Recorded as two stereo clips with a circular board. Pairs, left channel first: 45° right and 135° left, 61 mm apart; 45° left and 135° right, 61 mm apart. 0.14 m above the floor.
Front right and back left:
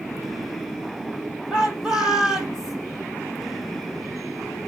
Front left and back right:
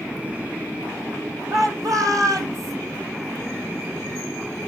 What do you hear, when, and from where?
1.5 s a shout: 150° right, 5 m